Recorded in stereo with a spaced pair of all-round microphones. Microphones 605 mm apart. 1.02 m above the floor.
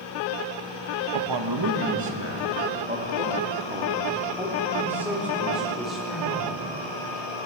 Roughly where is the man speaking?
Right.